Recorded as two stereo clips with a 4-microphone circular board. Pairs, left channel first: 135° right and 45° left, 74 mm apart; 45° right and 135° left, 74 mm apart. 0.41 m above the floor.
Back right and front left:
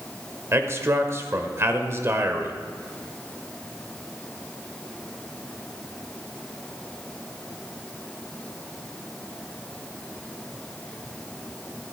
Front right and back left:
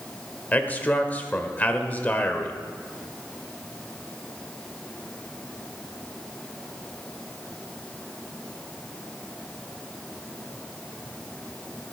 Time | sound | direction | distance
0.5 | a man speaking | 15° left | 1.2 m